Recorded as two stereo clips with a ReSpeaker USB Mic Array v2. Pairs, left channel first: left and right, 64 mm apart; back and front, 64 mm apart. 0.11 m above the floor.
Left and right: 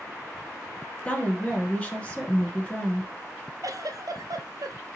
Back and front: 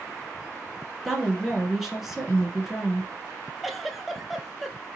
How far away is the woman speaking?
About 1.2 m.